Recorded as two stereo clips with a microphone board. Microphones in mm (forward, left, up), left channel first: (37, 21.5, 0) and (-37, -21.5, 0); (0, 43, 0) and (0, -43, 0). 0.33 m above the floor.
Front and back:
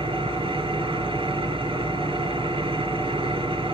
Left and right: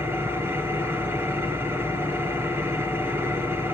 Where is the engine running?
155° right, 3.5 m.